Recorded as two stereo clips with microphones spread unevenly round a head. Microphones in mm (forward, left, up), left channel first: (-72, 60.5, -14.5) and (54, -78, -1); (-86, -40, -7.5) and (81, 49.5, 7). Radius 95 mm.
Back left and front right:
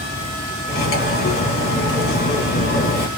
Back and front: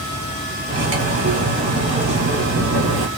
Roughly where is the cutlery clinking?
Left.